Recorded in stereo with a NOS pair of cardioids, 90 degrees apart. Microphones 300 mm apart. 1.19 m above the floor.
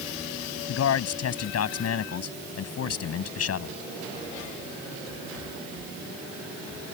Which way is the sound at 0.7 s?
60° left.